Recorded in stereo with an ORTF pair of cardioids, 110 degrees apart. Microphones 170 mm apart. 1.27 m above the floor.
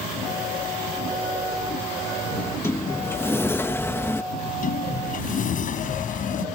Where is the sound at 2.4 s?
15° left.